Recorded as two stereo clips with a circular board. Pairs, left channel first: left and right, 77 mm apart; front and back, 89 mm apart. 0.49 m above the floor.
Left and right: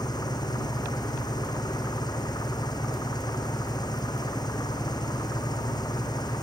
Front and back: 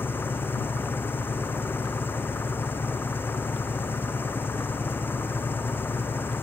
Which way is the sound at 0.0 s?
65° left.